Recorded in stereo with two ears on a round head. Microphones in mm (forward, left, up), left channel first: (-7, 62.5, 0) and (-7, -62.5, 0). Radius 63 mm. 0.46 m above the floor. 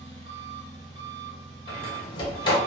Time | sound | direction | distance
0.0 | an engine running | 45° right (ahead or behind) | 0.9 m
1.7 | a door slam | 30° left (ahead or behind) | 1.7 m